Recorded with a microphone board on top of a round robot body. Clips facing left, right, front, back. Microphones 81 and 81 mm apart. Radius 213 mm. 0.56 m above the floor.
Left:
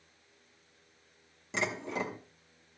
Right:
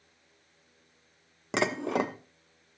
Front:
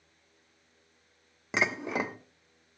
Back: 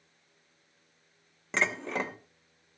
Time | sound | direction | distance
1.5 | dishes clattering | 80° right | 1.0 m